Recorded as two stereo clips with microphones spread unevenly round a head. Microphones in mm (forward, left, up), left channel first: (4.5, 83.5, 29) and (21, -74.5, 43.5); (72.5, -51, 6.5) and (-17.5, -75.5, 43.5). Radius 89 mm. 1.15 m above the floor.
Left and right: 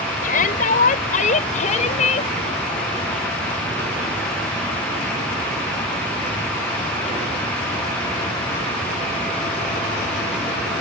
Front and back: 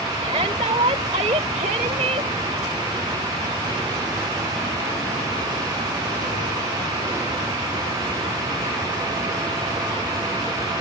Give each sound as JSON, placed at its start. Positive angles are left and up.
{"t": 0.2, "sound": "a shout", "azimuth_deg": 140}